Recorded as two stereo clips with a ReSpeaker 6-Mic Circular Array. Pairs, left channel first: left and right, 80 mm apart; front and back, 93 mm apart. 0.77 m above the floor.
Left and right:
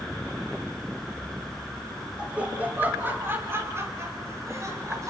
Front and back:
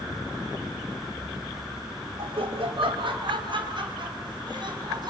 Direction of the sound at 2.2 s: 165° right.